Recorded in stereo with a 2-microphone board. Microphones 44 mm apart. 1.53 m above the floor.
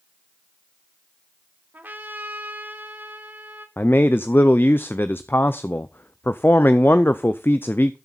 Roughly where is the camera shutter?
No camera shutter in this recording.